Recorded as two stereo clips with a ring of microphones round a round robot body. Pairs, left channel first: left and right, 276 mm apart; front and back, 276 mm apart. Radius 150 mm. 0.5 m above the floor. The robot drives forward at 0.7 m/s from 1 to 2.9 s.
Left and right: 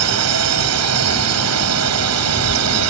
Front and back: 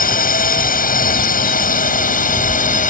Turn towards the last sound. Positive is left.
turn(degrees=-60)